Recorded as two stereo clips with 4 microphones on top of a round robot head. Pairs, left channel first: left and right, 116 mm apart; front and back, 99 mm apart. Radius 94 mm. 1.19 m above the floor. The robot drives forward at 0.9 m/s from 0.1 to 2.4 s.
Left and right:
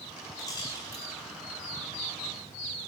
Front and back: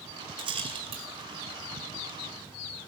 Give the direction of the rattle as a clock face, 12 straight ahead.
7 o'clock.